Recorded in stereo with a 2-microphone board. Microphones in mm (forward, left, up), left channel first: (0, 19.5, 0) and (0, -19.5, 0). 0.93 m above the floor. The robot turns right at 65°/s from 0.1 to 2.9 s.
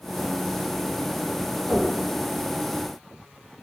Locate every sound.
1.7 s knocking: 50° left (ahead or behind), 1.3 m; by 1.9 s 65° left (ahead or behind), 1.3 m